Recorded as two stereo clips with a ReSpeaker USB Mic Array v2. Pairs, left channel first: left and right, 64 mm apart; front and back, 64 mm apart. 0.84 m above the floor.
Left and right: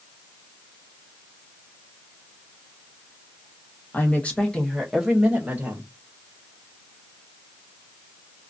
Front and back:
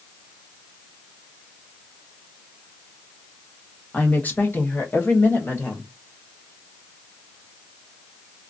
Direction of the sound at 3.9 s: 50° left.